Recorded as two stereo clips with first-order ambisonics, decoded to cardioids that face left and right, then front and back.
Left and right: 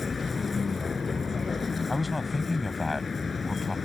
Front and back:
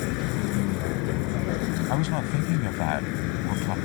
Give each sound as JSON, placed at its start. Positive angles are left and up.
{"t": 0.0, "sound": "a vehicle", "azimuth_deg": 20}
{"t": 1.9, "sound": "a man speaking", "azimuth_deg": 10}